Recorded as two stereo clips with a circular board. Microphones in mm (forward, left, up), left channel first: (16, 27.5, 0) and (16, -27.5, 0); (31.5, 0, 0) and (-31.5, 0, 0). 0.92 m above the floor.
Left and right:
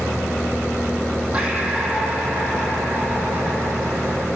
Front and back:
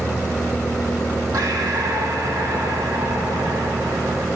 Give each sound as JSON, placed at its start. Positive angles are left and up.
{"t": 1.3, "sound": "breathing", "azimuth_deg": -165, "distance_m": 6.0}